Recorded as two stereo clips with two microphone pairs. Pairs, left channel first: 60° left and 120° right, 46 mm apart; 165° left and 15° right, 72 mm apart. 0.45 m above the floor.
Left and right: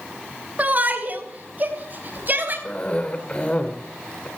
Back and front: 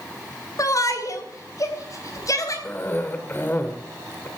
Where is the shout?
170° right, 2.5 m; by 2.5 s 165° right, 3.5 m.